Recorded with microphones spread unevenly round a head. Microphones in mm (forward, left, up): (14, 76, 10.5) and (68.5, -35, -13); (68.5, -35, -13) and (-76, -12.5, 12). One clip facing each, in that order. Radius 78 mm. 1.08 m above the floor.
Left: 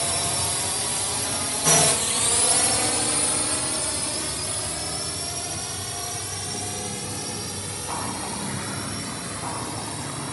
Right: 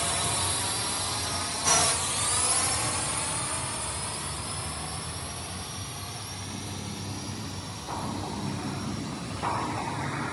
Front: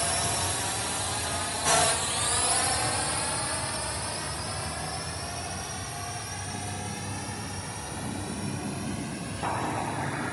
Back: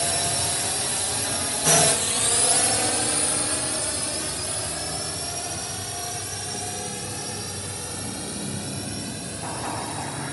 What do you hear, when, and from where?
0.0 s a drone: 155° left; by 10.3 s 125° left